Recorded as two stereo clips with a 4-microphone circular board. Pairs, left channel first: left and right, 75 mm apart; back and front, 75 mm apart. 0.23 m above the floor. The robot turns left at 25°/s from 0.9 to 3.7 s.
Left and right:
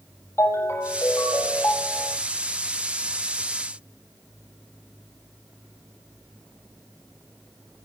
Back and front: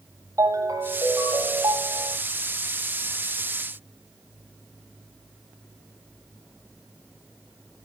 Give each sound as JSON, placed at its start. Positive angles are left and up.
{"t": 0.4, "sound": "a ringtone", "azimuth_deg": 40, "distance_m": 5.5}